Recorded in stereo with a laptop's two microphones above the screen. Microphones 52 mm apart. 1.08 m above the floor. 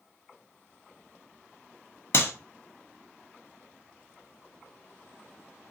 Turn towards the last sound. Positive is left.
turn(degrees=50)  # may be behind; listen again after turning